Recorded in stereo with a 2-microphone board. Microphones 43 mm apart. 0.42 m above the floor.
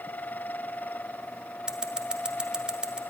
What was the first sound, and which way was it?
Scissors, 25° right (ahead or behind).